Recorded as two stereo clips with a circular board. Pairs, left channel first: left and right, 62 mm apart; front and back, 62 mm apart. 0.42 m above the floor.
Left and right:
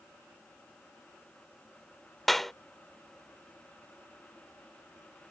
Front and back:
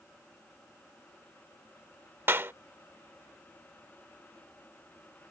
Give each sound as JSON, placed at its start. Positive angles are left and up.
{"t": 2.3, "sound": "a clap", "azimuth_deg": 170}